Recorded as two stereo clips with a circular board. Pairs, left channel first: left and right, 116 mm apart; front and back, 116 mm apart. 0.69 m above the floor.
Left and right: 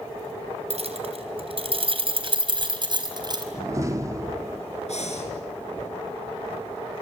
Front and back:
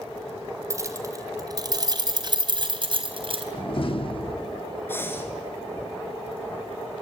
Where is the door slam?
30° right, 1.1 m.